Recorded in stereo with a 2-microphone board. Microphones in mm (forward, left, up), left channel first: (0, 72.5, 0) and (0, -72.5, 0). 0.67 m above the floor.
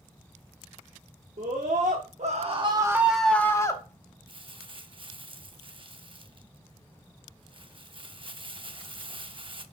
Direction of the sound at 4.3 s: 35° right (ahead or behind).